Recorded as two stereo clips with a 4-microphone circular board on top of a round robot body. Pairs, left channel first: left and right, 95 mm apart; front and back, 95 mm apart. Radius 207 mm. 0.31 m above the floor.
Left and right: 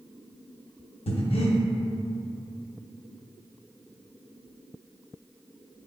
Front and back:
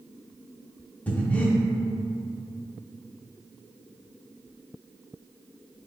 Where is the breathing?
75° left, 0.6 m.